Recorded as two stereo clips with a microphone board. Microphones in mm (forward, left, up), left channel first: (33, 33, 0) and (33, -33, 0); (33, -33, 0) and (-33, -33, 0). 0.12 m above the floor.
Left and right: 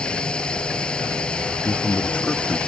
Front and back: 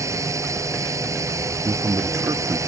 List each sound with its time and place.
0.0 s a drone: 160° left
1.6 s a man speaking: 160° left